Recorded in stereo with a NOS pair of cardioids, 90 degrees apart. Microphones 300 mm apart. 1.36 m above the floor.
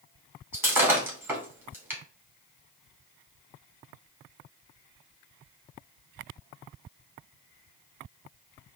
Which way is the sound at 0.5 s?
10° right.